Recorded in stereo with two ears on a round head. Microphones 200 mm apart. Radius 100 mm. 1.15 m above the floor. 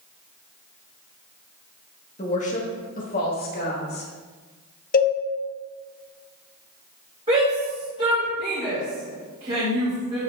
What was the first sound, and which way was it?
A woman speaking, 30° left (ahead or behind).